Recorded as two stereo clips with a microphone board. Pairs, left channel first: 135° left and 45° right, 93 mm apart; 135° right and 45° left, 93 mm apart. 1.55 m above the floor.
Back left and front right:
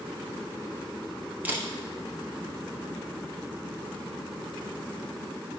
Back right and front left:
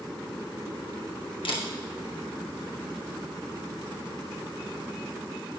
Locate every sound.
1.4 s a camera shutter: 120° right, 0.9 m